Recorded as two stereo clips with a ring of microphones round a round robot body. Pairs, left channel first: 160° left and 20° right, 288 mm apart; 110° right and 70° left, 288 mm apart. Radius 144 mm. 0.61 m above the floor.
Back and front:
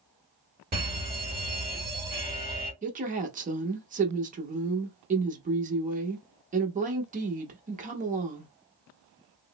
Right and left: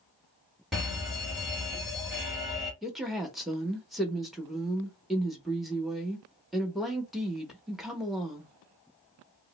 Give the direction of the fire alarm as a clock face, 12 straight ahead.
1 o'clock.